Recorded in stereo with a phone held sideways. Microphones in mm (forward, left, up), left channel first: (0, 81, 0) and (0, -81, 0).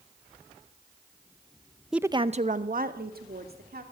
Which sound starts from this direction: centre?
A woman speaking, at 1.9 s.